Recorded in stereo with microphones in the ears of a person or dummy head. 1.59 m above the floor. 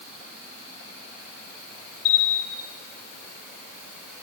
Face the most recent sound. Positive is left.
turn(degrees=50)  # may be behind; listen again after turning